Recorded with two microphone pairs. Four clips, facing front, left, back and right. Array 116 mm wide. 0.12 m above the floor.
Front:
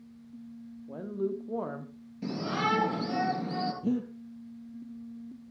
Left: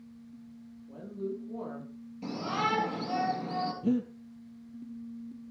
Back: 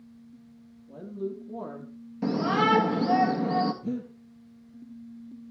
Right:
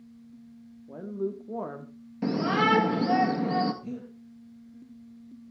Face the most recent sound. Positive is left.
turn(degrees=55)